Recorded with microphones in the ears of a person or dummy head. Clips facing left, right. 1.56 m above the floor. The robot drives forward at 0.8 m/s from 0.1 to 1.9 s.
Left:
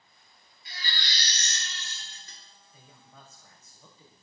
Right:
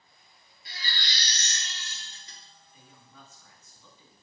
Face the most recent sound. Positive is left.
turn(degrees=35)  # may be behind; listen again after turning